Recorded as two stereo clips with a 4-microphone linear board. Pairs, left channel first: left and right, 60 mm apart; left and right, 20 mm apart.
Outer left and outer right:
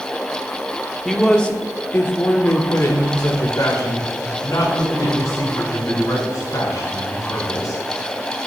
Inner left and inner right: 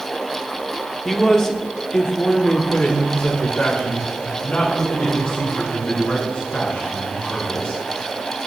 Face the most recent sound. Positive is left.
turn(degrees=70)  # may be behind; listen again after turning